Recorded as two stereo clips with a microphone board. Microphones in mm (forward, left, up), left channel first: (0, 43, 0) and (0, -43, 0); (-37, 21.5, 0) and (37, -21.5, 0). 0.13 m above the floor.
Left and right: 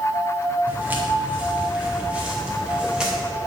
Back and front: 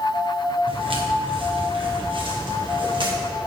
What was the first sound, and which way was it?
Footsteps, 20° right.